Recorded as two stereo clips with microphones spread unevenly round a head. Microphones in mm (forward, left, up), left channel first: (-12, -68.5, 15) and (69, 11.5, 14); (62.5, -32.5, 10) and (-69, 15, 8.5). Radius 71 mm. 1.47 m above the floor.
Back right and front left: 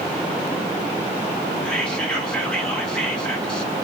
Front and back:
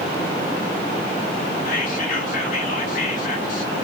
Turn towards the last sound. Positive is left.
turn(degrees=-55)